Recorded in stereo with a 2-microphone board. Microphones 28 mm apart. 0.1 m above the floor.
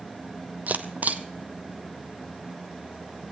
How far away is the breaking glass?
I don't hear breaking glass.